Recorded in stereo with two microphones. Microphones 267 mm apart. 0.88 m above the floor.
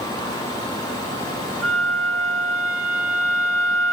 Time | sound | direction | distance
1.6 | a flute | 60° right (ahead or behind) | 4 m